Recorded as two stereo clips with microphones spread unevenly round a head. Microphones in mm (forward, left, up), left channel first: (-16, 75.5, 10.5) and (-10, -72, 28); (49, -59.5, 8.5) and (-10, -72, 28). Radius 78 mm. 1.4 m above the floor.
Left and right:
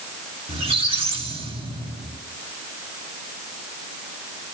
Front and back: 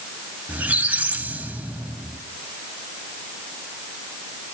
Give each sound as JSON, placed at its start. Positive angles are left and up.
{"t": 0.5, "sound": "a squeak", "azimuth_deg": -125, "distance_m": 1.9}